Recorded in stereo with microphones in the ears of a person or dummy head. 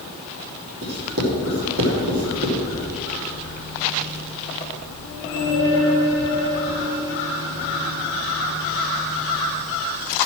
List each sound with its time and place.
0.8 s writing: 80° right, 3 m